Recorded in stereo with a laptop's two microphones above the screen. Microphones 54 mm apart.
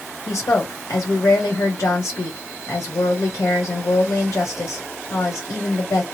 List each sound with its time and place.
0.3 s a woman speaking: 70° left (ahead or behind), 1.5 m